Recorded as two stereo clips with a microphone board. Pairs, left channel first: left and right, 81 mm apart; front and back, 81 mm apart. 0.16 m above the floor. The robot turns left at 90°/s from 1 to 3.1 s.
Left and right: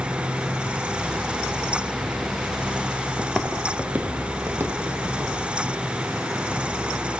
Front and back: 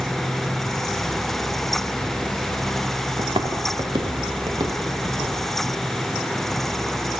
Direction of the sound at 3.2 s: Straight behind.